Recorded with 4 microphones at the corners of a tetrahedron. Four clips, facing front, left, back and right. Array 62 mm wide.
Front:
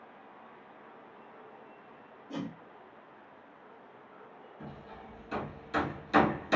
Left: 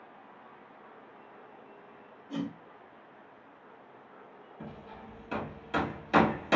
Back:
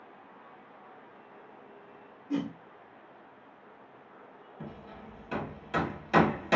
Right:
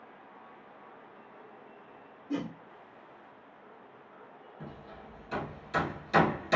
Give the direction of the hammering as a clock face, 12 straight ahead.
7 o'clock.